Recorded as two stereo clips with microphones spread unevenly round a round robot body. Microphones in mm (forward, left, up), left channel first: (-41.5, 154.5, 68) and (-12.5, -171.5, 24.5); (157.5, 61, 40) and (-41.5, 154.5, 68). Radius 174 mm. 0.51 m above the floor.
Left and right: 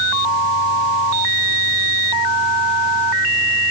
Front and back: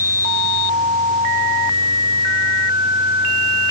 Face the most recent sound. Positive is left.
No sound to turn to.